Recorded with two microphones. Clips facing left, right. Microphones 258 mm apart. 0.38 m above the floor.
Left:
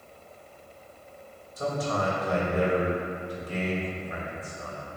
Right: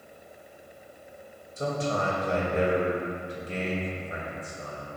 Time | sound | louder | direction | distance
1.6 | a man speaking | even | 25° right (ahead or behind) | 2 m